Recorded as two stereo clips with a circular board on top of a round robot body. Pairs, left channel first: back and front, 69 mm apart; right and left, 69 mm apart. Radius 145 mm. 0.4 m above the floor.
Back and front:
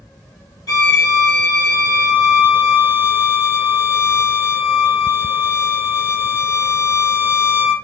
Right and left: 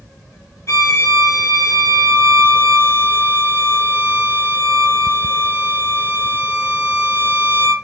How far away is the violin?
About 0.5 m.